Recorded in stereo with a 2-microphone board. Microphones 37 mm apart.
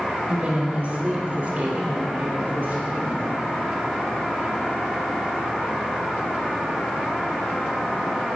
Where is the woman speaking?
35° right (ahead or behind), 1.3 m; by 3.2 s 60° right (ahead or behind), 3 m.